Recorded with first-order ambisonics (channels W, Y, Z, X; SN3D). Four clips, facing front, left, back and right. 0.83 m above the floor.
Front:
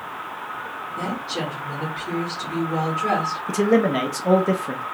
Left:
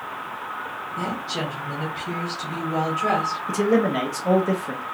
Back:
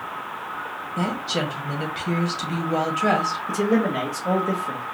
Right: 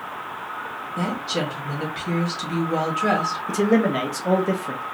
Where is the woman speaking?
150° right, 1.7 m.